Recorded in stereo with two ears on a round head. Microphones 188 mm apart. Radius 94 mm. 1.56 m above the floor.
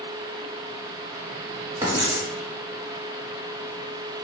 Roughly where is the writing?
Centre.